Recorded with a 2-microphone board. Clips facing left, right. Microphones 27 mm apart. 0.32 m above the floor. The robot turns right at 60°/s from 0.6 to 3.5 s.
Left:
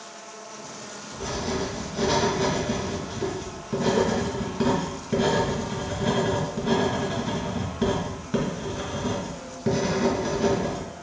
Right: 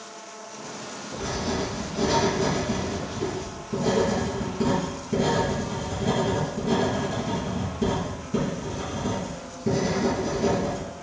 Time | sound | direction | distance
1.2 | writing | 25° right | 2.0 m